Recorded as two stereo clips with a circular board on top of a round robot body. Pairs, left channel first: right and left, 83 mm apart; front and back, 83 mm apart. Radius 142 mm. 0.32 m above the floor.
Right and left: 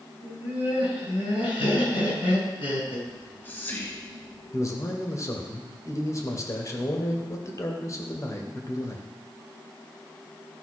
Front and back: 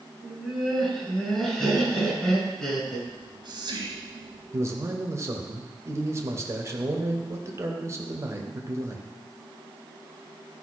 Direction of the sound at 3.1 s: 155° right.